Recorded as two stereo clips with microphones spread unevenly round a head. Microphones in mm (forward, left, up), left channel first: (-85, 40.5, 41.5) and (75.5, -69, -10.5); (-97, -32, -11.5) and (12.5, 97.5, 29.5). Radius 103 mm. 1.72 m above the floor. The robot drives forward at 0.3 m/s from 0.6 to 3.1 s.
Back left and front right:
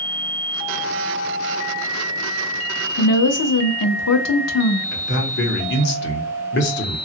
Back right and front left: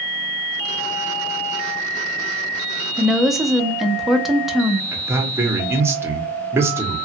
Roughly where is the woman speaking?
Behind left.